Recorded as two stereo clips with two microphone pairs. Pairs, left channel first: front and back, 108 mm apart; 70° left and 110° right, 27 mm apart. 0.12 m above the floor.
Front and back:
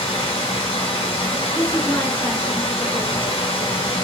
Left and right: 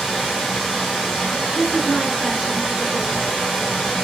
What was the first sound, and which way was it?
Running water, 25° right.